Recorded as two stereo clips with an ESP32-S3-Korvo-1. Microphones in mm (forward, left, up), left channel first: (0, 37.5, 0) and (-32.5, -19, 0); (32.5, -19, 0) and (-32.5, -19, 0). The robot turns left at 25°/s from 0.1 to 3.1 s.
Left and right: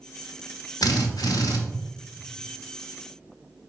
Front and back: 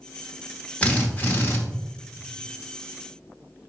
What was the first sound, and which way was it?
A drill, 70° left.